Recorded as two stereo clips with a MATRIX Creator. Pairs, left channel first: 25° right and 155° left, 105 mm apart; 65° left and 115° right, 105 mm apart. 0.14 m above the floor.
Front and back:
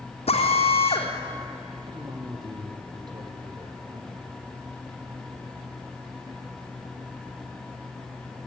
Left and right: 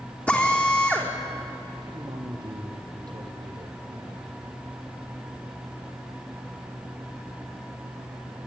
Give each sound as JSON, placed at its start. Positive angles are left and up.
{"t": 0.3, "sound": "a drill", "azimuth_deg": -10, "distance_m": 3.5}
{"t": 1.8, "sound": "a man speaking", "azimuth_deg": -160, "distance_m": 4.0}